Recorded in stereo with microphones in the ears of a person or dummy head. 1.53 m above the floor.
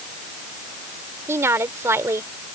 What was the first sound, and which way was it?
A woman speaking, 20° right (ahead or behind).